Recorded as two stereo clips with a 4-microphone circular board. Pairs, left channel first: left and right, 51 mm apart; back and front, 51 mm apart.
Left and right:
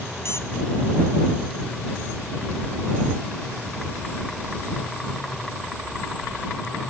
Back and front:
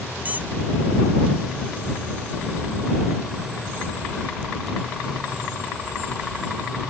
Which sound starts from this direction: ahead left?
A squeak, at 0.2 s.